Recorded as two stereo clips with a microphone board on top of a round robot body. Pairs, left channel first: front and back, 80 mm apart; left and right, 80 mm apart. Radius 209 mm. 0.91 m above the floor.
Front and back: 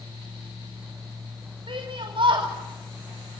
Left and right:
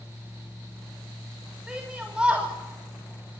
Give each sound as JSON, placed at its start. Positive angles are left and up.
{"t": 1.7, "sound": "a shout", "azimuth_deg": -170, "distance_m": 3.0}